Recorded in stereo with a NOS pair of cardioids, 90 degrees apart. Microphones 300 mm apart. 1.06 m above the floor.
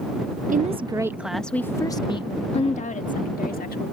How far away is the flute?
I don't hear a flute.